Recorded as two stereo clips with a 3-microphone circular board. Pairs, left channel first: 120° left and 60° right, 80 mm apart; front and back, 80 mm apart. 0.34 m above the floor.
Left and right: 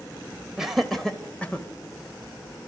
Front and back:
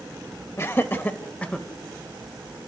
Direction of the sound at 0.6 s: 20° left.